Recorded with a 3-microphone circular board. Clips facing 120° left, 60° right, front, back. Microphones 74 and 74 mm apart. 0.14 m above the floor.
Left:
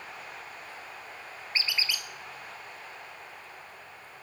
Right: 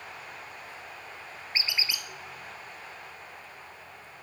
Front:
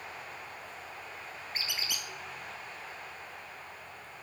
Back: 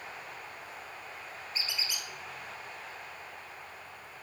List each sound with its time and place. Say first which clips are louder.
1.5 s a squeak: left 1 dB, even; 10° left, 0.6 m